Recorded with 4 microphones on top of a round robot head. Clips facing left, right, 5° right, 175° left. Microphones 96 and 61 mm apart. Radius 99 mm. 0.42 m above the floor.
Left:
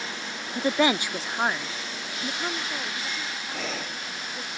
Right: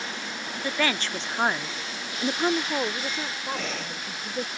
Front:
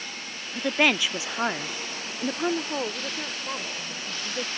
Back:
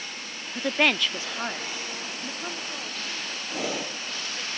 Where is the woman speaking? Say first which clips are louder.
Left 5 dB, front 1 dB; 95° left; by 4.5 s 55° right.